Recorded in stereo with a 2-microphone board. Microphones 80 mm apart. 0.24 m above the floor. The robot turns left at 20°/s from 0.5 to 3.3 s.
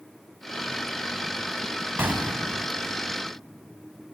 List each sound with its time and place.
2.0 s an explosion: 30° right (ahead or behind), 1.5 m; by 2.7 s 20° right (ahead or behind), 1.5 m